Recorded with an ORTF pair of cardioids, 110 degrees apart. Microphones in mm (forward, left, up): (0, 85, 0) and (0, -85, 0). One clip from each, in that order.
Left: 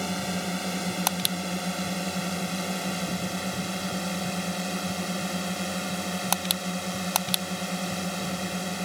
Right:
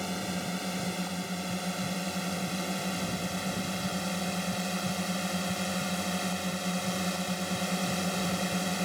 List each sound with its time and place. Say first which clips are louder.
0.0 s a drone: left 4 dB; 25° left; by 8.8 s straight ahead